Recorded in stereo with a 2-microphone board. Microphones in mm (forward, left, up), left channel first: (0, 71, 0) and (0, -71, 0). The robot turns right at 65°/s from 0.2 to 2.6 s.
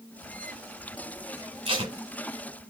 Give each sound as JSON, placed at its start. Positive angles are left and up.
{"t": 1.6, "sound": "tape being pulled", "side_deg": -40, "distance_m": 2.0}